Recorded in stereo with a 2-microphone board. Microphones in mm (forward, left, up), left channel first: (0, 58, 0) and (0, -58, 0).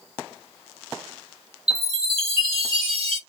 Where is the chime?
60° right (ahead or behind), 2.5 m.